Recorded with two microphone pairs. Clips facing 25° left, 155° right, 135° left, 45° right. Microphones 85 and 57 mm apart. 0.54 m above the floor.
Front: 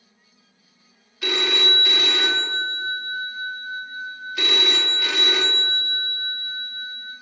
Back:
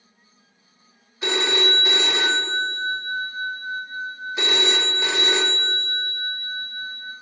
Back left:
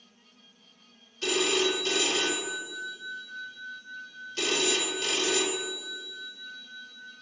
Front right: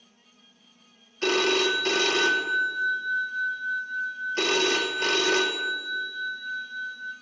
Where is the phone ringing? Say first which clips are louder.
Back 2 dB, front right 4 dB; 90° right, 0.8 m.